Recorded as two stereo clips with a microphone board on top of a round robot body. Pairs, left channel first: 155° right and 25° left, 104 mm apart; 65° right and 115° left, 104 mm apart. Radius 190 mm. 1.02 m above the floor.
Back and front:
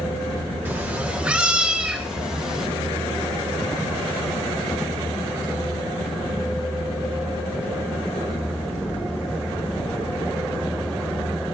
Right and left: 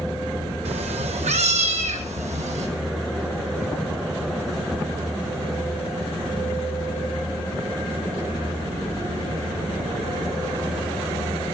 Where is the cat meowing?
95° left, 1.1 m; by 2.7 s 105° left, 2.5 m.